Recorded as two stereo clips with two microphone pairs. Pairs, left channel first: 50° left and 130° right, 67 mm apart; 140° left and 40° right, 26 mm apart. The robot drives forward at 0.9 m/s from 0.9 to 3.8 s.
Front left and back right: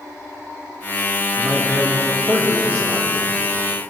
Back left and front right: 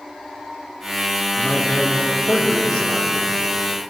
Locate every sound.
1.4 s a man speaking: 170° right, 1.2 m; by 3.1 s straight behind, 2.5 m